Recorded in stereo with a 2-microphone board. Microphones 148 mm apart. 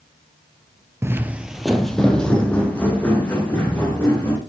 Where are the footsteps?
20° right (ahead or behind), 0.5 m; by 4.4 s 10° left (ahead or behind), 3 m.